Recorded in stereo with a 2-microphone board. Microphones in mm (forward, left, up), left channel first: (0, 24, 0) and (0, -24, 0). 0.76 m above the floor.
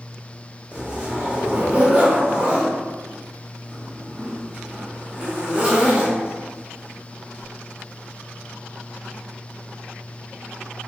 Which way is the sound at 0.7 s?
20° right (ahead or behind).